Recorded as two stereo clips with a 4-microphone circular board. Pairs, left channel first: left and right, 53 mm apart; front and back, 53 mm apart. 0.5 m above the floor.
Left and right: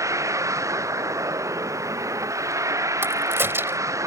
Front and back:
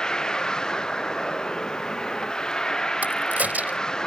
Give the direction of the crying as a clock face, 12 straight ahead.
I don't hear crying.